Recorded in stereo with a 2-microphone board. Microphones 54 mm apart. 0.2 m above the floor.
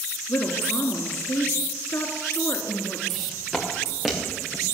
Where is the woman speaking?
60° left (ahead or behind), 2 m.